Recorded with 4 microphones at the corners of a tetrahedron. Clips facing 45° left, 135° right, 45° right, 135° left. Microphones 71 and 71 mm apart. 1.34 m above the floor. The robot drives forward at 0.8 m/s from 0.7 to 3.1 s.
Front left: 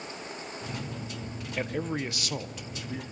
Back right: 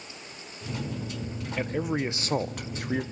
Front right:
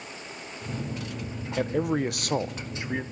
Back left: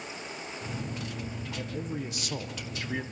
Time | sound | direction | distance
1.6 | a man speaking | 45° right | 1.0 m